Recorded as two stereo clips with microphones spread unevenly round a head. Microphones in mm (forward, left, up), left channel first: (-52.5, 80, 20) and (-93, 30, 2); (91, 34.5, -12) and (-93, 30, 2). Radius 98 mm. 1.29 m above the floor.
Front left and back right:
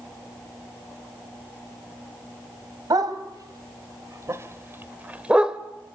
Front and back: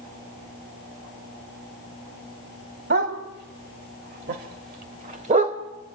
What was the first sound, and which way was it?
A dog barking, 150° right.